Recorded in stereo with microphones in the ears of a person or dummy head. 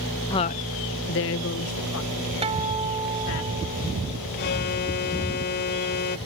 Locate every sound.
0.3 s a woman speaking: 15° left (ahead or behind); by 3.4 s 65° left (ahead or behind)
2.4 s a guitar: 30° right (ahead or behind)
4.4 s an alarm: 50° left (ahead or behind)